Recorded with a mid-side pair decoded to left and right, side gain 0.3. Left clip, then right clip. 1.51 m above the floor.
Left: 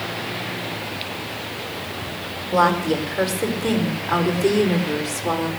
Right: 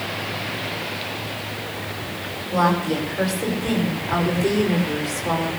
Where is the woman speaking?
60° left, 6 m; by 5.5 s 45° left, 5 m.